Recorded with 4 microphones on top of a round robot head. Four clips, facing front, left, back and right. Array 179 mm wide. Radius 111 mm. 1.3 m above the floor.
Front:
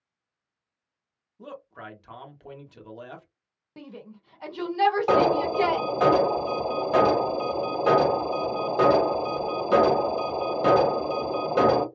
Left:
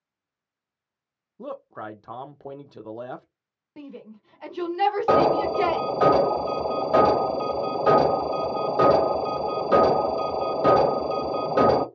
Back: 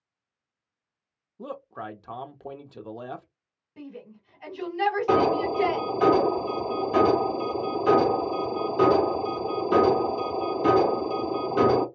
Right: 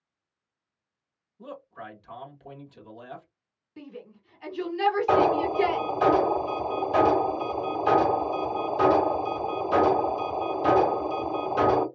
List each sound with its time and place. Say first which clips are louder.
1.4 s a man speaking: left 6 dB, back 5 dB; 125° left, 0.7 m
3.8 s a shout: left 2 dB, back 1 dB; 45° left, 1.4 m
5.1 s an alarm: left 3 dB, front 1 dB; 55° left, 1.4 m